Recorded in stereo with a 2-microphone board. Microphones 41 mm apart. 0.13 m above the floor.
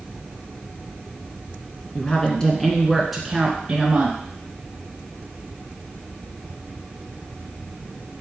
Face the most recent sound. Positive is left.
turn(degrees=-20)  # may be behind; listen again after turning